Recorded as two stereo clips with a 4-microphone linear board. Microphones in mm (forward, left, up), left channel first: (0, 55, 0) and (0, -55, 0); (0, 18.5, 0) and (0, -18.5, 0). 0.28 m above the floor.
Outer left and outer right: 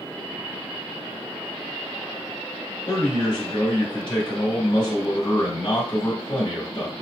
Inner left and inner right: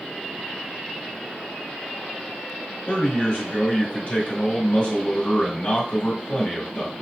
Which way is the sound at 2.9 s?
50° left (ahead or behind).